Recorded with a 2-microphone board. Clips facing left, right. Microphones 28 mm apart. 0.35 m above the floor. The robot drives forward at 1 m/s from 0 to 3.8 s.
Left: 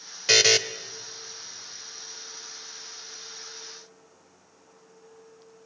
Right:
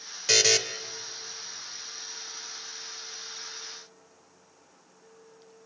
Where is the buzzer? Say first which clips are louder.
Left 3 dB; 25° left (ahead or behind), 1.0 m; by 0.6 s 20° left (ahead or behind), 1.1 m.